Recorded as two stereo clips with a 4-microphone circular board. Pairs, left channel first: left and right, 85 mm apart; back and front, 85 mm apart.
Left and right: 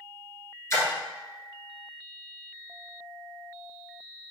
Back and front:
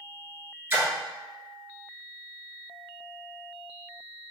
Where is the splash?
55° left, 1.2 m.